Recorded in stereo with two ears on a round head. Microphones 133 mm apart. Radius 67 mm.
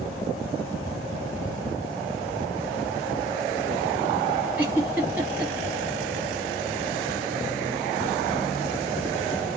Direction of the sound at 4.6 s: 15° right (ahead or behind).